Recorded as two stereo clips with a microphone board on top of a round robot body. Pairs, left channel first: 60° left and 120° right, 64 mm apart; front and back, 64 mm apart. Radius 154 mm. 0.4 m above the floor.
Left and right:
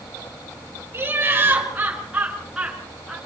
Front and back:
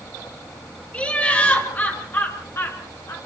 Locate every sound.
0.9 s laughter: 65° right, 7 m; by 3.2 s 40° right, 7 m